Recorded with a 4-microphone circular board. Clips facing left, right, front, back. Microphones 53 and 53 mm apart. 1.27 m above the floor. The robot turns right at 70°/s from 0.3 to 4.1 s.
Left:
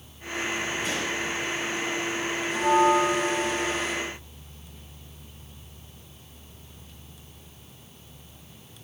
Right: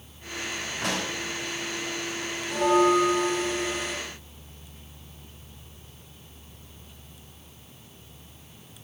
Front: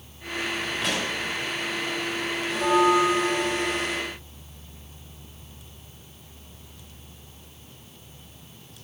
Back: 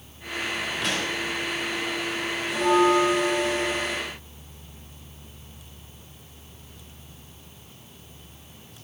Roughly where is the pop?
Right.